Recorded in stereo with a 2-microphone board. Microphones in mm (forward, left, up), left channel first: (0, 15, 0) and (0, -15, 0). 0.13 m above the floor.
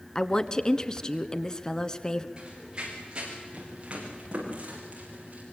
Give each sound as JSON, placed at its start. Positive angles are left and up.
{"t": 0.1, "sound": "a woman speaking", "side_deg": 20, "distance_m": 1.3}
{"t": 2.4, "sound": "running footsteps", "side_deg": -30, "distance_m": 9.0}